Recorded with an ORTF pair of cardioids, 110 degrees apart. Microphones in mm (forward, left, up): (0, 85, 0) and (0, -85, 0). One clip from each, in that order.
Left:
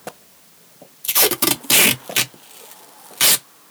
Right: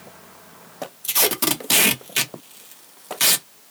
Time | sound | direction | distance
1.0 | tape being pulled | 15° left | 0.6 m